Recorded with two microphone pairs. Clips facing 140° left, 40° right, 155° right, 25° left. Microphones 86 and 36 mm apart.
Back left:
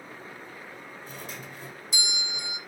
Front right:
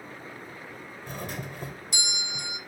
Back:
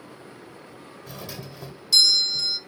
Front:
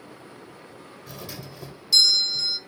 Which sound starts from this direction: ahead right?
A doorbell, at 1.1 s.